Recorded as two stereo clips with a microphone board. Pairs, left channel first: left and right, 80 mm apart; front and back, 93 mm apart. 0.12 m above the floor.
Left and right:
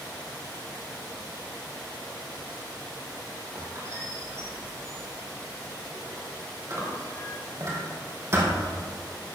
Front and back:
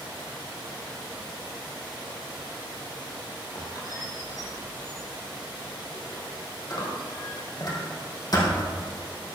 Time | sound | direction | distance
3.5 | a squeak | 40° right | 3.5 m